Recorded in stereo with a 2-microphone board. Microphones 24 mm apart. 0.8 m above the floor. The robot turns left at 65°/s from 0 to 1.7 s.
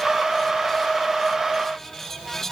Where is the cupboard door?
I don't hear a cupboard door.